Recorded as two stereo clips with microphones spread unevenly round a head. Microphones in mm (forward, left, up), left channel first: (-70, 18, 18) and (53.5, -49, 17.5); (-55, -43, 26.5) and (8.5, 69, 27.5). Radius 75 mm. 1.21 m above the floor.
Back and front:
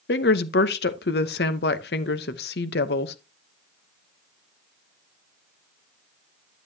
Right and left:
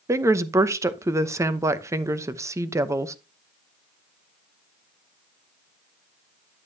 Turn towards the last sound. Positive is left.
turn(degrees=130)